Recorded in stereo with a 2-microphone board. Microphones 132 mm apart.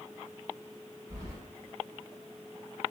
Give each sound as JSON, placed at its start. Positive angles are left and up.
{"t": 1.1, "sound": "keys jangling", "side_deg": -20, "distance_m": 1.2}